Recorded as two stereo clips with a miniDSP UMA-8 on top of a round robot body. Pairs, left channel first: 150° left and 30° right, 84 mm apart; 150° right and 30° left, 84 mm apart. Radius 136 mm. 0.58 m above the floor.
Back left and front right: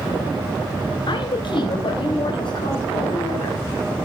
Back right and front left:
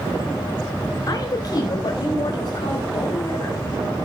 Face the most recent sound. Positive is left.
turn(degrees=175)